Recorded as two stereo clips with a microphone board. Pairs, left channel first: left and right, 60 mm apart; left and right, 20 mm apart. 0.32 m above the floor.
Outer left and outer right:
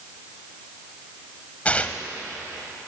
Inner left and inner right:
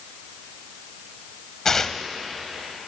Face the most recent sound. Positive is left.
turn(degrees=25)  # may be behind; listen again after turning